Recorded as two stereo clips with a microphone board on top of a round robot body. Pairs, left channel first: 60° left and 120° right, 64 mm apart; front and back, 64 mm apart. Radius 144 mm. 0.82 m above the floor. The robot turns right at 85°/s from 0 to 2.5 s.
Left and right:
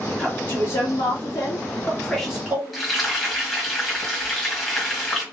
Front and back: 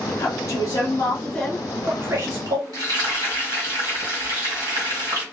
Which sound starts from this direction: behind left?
Frying, at 2.7 s.